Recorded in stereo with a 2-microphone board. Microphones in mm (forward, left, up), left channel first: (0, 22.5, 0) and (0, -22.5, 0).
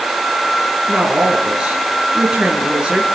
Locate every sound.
0.9 s a woman speaking: 20° right (ahead or behind), 5.5 m